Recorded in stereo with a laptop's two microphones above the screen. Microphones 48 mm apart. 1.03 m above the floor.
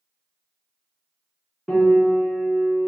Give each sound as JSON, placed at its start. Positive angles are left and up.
{"t": 1.7, "sound": "a piano", "side_deg": 0, "distance_m": 0.8}